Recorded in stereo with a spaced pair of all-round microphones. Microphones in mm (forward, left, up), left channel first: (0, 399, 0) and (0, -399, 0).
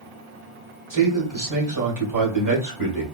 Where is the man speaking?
25° right (ahead or behind), 1.5 m.